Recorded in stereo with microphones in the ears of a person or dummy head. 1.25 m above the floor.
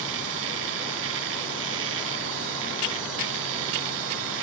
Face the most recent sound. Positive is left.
turn(degrees=-70)  # may be behind; listen again after turning